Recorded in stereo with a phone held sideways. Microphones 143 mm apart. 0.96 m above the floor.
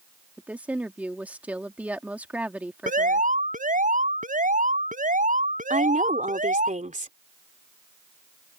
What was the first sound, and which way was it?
A woman speaking, 10° right (ahead or behind).